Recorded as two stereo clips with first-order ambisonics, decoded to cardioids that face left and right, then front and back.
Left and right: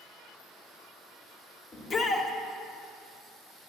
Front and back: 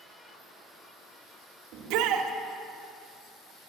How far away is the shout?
About 1.2 m.